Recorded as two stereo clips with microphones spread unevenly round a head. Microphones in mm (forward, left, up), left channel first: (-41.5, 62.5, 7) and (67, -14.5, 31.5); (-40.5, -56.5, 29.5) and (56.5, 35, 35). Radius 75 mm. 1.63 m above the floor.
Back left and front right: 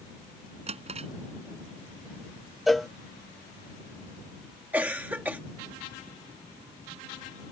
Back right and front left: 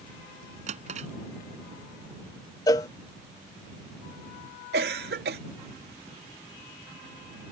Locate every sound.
0.7 s a drawer: 5° left
2.7 s a cowbell: 100° right
4.7 s a cough: 40° left